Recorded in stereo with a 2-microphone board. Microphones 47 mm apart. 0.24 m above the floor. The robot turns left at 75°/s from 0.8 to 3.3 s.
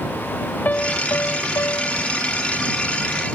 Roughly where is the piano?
Behind left.